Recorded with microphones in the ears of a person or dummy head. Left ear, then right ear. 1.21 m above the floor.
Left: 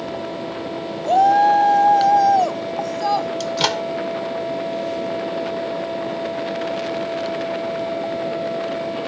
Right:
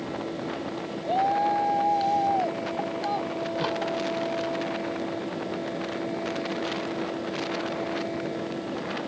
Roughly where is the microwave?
Left.